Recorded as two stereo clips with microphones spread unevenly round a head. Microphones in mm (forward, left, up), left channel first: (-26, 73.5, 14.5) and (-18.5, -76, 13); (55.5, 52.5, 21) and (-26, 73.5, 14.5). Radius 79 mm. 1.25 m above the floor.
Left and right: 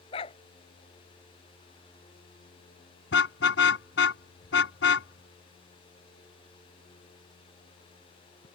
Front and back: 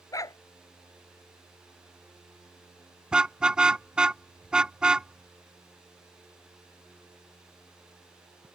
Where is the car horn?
85° left.